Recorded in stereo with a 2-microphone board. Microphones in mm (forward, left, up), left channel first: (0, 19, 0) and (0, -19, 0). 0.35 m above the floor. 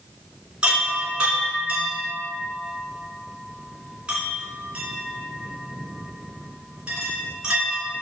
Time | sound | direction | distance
0.6 | a chime | 25° right (ahead or behind) | 3 m